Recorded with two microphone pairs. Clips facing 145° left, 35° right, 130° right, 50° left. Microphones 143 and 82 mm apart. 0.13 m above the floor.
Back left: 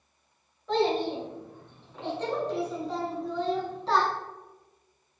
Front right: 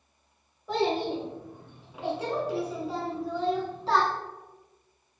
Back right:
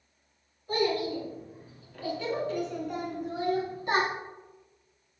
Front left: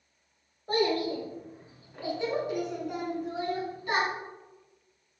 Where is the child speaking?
40° left, 1.7 m; by 4.1 s 130° right, 1.2 m.